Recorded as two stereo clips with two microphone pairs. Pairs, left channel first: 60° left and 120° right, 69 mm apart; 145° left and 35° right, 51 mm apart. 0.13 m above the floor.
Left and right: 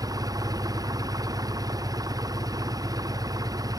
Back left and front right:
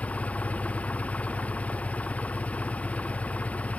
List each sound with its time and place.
0.0 s an engine running: 150° right